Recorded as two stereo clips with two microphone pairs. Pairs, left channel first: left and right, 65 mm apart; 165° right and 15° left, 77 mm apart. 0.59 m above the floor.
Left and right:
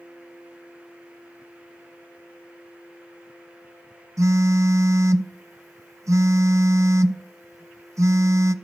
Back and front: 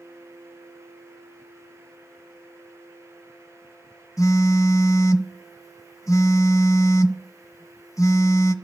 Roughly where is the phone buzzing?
Behind right.